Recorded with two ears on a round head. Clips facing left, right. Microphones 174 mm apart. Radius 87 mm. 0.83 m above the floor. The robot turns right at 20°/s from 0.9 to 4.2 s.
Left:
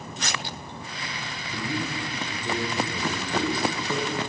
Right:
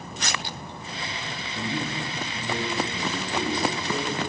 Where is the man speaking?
115° left, 3 m; by 4.2 s 170° left, 3 m.